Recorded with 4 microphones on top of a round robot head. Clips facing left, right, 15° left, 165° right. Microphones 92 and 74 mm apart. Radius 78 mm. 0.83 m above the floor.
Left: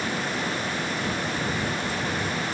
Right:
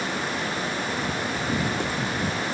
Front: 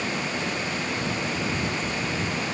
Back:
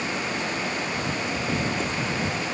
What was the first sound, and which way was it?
Running footsteps, 130° right.